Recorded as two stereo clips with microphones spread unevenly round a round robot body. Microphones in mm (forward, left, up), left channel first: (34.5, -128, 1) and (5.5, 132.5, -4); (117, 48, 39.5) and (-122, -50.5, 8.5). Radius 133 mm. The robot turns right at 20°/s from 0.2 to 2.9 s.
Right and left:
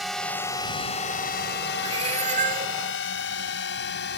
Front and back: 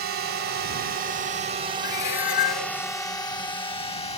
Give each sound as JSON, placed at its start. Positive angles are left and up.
{"t": 0.0, "sound": "a drone", "azimuth_deg": -175}
{"t": 1.8, "sound": "a cat meowing", "azimuth_deg": 25}